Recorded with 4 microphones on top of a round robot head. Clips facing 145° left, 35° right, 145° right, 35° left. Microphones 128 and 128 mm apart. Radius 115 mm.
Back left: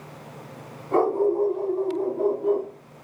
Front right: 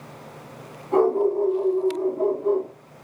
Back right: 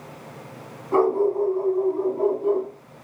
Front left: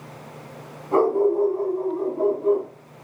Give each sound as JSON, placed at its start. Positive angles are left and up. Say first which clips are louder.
{"t": 0.9, "sound": "a dog barking", "louder": "front right 2 dB, front left 1 dB", "azimuth_deg": 100, "distance_m": 1.9}